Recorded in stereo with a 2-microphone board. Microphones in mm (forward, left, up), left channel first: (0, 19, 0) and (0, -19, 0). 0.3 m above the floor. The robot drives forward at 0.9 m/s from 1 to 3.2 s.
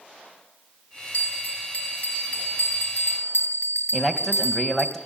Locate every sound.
1.1 s a bell: 45° left (ahead or behind), 5 m; by 4.9 s 65° left (ahead or behind), 4 m
3.9 s a man speaking: 5° left (ahead or behind), 2.5 m